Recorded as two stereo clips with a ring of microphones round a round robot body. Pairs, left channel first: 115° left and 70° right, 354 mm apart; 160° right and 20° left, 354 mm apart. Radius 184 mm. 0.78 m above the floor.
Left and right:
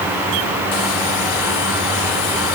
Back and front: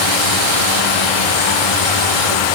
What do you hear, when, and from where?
Only background noise.